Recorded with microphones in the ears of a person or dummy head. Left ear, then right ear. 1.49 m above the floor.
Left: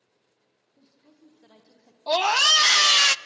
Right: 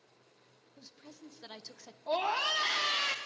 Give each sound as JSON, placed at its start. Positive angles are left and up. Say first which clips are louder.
{"t": 0.8, "sound": "a woman speaking", "louder": "right 6 dB", "side_deg": -80, "distance_m": 1.3}
{"t": 2.1, "sound": "a scream", "louder": "left 12 dB", "side_deg": 70, "distance_m": 0.5}